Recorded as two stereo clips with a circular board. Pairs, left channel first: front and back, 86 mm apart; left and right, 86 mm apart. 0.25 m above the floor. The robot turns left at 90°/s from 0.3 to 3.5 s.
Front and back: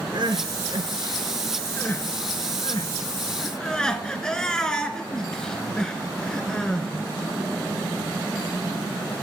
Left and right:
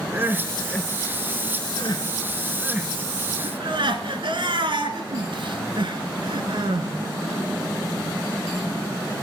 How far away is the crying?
About 0.9 m.